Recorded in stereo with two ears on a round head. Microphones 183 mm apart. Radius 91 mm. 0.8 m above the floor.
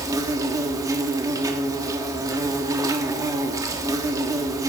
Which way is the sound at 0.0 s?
15° right (ahead or behind).